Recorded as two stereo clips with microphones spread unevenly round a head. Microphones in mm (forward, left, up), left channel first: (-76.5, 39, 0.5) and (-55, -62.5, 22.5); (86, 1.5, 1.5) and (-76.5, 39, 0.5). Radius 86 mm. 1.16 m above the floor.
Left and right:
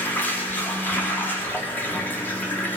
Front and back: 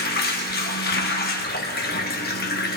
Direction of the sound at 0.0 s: 15° left.